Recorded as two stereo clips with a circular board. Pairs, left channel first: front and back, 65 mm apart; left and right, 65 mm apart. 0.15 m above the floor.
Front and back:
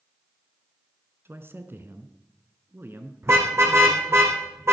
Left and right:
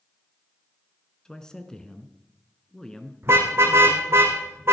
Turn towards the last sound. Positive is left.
turn(degrees=-140)